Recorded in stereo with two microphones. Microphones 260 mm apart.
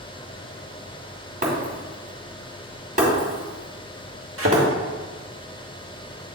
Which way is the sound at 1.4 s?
30° right (ahead or behind).